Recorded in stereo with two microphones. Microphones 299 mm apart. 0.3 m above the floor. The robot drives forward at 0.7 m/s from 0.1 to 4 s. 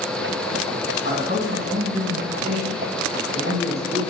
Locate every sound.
1.0 s a man speaking: 40° right (ahead or behind), 2 m; by 4.0 s 20° right (ahead or behind), 3.5 m